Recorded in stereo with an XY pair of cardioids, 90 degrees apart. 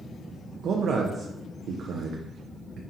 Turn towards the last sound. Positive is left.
turn(degrees=-70)